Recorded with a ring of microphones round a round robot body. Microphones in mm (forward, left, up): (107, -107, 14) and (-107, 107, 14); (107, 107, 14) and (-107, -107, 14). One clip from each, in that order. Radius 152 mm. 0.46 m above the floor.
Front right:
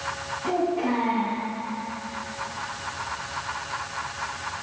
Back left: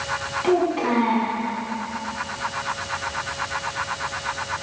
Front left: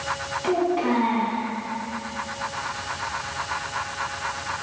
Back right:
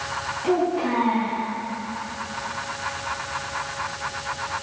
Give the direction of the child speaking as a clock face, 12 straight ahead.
8 o'clock.